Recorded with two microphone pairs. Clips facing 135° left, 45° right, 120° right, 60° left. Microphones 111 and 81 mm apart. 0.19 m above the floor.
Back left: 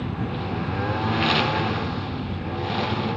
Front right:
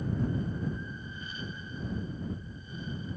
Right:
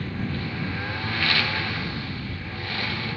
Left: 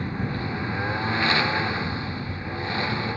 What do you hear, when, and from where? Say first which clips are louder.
0.0 s a lawn mower: back left 4 dB, left 1 dB; 130° left